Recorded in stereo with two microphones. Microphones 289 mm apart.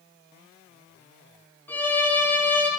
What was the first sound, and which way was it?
A violin, 5° left (ahead or behind).